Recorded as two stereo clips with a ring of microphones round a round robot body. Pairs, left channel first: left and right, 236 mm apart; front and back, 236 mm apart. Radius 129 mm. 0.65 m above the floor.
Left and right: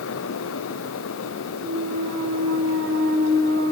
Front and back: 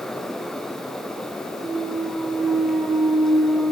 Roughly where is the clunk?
Right.